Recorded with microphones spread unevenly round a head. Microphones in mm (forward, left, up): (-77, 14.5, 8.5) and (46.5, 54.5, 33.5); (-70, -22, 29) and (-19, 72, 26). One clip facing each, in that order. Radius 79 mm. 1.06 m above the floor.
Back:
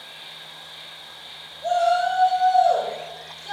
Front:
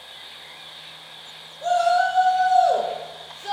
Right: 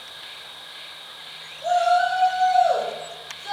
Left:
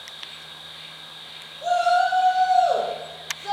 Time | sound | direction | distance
0.0 | an insect | 65° right | 0.8 m
1.6 | a shout | 15° left | 0.7 m